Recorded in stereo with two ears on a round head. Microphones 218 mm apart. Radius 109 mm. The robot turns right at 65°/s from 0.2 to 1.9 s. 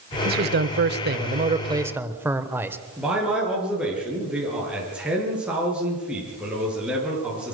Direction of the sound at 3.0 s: 5° right (ahead or behind).